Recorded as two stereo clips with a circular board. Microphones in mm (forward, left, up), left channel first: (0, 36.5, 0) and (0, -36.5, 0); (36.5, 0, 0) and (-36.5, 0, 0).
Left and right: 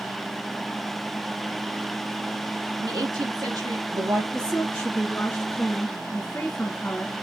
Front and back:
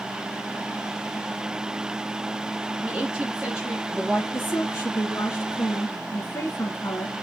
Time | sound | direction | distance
2.8 | a woman speaking | 105° right | 4.5 m
4.3 | a woman speaking | 25° left | 2.5 m